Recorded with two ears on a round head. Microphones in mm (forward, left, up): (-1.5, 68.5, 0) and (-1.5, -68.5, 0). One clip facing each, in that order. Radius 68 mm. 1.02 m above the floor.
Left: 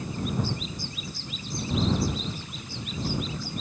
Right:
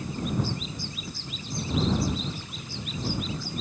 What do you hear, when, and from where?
Only background noise.